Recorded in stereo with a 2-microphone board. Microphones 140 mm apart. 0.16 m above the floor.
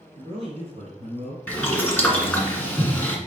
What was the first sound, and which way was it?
A man speaking, 35° right (ahead or behind).